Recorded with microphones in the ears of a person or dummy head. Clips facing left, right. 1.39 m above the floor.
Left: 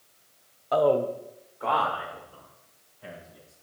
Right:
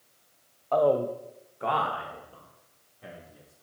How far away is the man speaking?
About 0.6 m.